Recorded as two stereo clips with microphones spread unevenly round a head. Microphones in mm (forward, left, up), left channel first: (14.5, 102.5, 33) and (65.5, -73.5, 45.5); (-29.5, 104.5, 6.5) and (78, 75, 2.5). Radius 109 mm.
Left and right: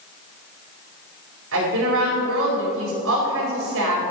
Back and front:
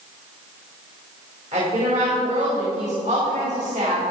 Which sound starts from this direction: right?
A woman speaking, at 1.5 s.